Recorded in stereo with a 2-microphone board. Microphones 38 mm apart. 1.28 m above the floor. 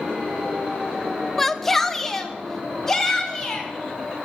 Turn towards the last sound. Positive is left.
turn(degrees=10)  # may be behind; listen again after turning